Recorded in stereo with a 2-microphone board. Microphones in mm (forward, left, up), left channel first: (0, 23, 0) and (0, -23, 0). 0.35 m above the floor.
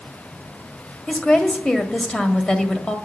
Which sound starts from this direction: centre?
A woman speaking, at 1.1 s.